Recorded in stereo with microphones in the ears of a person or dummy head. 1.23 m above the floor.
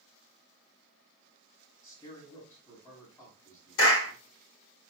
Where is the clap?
70° left (ahead or behind), 2.5 m.